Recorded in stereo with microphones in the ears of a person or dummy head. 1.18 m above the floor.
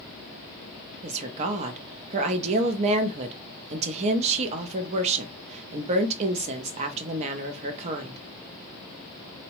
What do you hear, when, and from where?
1.0 s a woman speaking: 35° right (ahead or behind), 0.5 m